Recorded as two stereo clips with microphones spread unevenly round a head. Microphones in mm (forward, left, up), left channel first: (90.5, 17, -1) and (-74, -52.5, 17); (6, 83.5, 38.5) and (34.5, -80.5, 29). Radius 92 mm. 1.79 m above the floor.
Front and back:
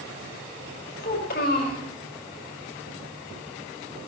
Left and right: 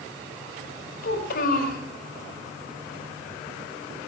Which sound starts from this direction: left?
A child speaking, at 1.0 s.